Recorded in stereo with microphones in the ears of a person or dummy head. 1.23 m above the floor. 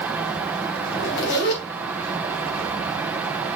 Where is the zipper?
60° left (ahead or behind), 3 m.